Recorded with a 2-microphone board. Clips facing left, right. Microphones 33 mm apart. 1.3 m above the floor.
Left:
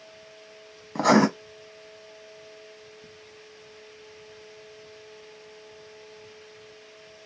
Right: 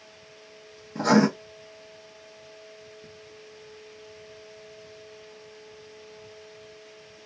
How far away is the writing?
About 1.1 m.